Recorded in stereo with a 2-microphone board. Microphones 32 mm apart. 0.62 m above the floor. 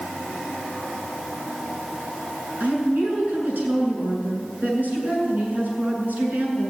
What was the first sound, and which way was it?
A woman speaking, 60° right (ahead or behind).